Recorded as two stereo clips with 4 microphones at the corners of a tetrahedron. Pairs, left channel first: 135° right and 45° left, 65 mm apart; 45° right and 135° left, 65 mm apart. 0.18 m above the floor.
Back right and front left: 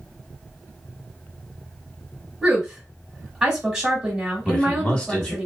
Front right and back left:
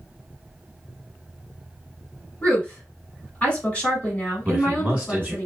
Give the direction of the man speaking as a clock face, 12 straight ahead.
6 o'clock.